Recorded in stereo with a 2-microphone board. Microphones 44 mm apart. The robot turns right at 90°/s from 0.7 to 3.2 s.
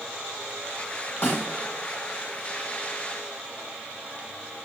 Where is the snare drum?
60° left (ahead or behind), 1.4 m; by 1.5 s 80° left, 1.4 m.